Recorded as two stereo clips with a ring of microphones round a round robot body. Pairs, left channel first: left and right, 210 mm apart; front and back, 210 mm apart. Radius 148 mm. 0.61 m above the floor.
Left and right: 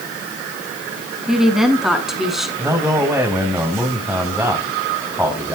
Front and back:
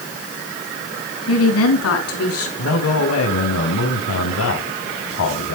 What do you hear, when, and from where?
1.3 s a woman speaking: straight ahead, 6 m
2.6 s a man speaking: 10° right, 4.5 m